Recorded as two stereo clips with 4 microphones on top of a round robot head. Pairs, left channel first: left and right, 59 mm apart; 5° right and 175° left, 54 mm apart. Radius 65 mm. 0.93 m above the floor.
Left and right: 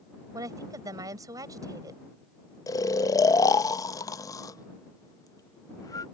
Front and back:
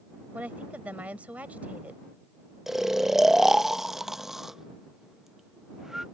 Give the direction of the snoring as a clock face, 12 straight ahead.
9 o'clock.